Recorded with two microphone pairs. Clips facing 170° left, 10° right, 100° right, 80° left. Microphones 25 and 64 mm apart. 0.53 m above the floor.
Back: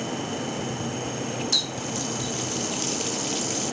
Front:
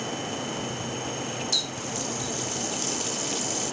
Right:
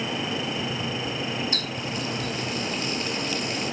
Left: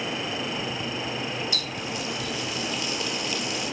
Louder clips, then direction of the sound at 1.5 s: Back 3 dB, right 1 dB; 115° right.